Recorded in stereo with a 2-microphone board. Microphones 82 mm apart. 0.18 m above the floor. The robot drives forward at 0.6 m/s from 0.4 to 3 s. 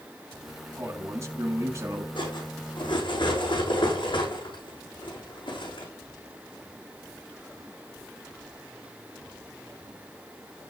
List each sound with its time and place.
0.8 s a man speaking: 35° right (ahead or behind), 2 m
2.1 s cutlery clinking: 85° left, 6 m; by 5.9 s 80° left, 6 m